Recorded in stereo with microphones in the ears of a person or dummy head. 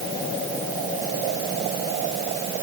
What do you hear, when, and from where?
Only background noise.